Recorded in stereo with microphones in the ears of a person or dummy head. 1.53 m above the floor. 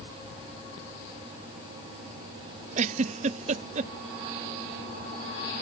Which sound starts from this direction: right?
A giggle, at 2.8 s.